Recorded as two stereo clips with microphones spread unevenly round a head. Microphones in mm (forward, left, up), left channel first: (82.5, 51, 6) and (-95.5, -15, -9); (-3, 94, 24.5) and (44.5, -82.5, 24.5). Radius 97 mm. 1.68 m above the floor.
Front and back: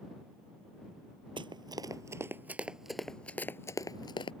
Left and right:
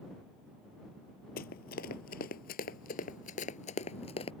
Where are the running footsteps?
140° left; by 4.3 s 60° left.